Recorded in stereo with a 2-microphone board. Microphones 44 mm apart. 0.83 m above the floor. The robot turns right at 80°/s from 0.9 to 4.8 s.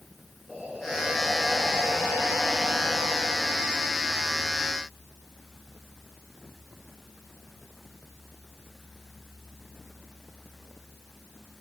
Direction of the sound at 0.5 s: 165° right.